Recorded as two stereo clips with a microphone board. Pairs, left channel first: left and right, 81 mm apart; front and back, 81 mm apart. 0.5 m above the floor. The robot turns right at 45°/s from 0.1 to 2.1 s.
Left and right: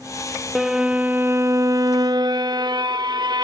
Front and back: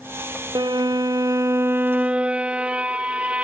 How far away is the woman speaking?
I don't hear a woman speaking.